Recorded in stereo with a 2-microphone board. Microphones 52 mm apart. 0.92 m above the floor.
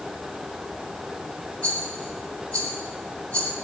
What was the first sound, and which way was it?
A rattle, 25° left (ahead or behind).